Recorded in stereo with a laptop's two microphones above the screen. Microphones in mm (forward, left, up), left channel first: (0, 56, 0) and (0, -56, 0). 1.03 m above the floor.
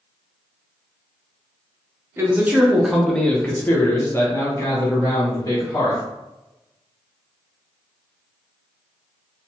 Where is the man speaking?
20° right (ahead or behind), 0.6 m; by 6.0 s 30° left (ahead or behind), 1.8 m.